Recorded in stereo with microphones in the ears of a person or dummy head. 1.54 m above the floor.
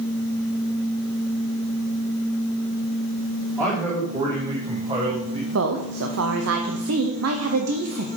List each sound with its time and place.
3.6 s a man speaking: 15° right (ahead or behind), 2 m; by 5.4 s 40° right (ahead or behind), 1.4 m
5.5 s a woman speaking: 80° right, 0.9 m